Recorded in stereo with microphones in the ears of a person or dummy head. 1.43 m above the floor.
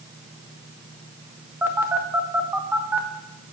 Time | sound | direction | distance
1.6 | a phone buzzing | 5° right (ahead or behind) | 0.6 m